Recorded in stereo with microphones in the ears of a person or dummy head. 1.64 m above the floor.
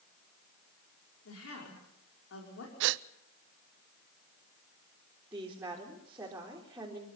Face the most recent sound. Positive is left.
turn(degrees=-10)  # may be behind; listen again after turning